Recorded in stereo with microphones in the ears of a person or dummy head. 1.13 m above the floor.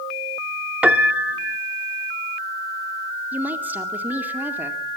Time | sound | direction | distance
0.8 | a piano | 5° right (ahead or behind) | 1.2 m
3.3 | a woman speaking | 10° right (ahead or behind) | 2 m